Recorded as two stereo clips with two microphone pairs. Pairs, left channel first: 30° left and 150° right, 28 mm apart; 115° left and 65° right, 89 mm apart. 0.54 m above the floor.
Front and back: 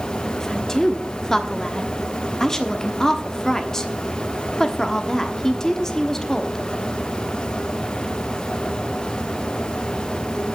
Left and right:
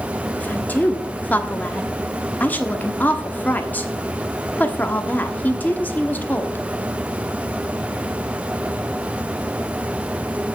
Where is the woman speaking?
75° left, 1.1 m.